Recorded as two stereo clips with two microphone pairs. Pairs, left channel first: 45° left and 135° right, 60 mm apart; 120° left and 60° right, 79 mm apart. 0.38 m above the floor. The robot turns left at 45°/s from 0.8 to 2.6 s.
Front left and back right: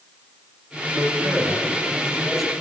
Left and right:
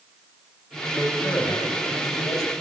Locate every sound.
0.9 s a man speaking: 160° right, 2.5 m; by 2.5 s 130° left, 2.5 m